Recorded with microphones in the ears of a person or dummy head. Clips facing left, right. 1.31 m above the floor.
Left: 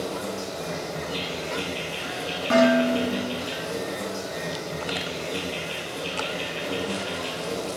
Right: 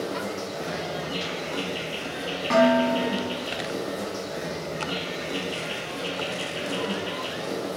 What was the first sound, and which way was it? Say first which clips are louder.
An insect: even; 15° right (ahead or behind).